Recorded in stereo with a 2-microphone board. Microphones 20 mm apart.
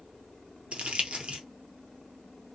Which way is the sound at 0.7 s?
85° right.